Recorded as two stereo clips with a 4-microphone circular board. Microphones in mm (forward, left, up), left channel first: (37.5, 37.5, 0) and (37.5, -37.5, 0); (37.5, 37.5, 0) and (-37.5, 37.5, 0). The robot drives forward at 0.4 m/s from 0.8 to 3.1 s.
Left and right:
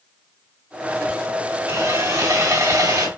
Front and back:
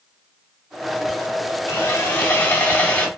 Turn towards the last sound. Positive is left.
turn(degrees=-70)